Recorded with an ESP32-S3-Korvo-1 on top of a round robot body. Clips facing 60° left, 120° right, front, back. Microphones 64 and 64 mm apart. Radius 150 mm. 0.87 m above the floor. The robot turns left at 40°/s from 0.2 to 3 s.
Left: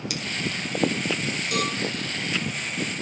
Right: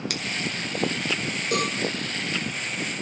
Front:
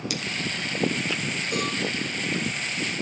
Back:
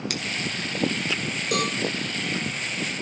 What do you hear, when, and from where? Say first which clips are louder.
0.1 s scissors: even, even; 150° right, 2.5 m
1.5 s a cowbell: right 2 dB, back 4 dB; 175° right, 2.5 m; by 1.8 s 175° left, 2.5 m